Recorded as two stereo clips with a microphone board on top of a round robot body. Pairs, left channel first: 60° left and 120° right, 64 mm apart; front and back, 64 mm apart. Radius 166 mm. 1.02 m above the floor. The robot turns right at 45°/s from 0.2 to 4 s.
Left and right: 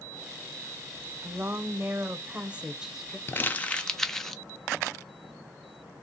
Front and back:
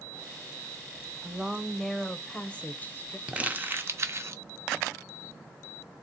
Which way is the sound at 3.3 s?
110° left.